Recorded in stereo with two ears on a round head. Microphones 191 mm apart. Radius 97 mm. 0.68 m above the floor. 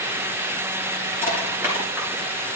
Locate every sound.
1.2 s crushing: 10° right (ahead or behind), 4.5 m